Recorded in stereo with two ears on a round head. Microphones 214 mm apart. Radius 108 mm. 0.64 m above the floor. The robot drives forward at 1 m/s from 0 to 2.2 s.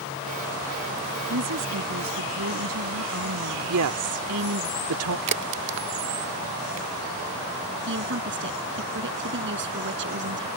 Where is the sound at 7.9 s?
50° right (ahead or behind).